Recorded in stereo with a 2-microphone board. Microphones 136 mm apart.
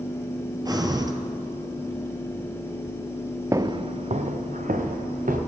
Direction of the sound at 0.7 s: 30° right (ahead or behind).